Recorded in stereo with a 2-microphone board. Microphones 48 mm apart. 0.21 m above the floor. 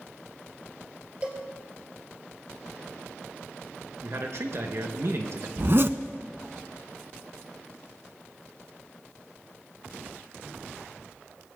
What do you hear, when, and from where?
1.2 s a cowbell: 25° right (ahead or behind), 2.5 m
4.0 s a man speaking: 65° right (ahead or behind), 2.5 m
5.6 s a zipper: 55° right (ahead or behind), 0.5 m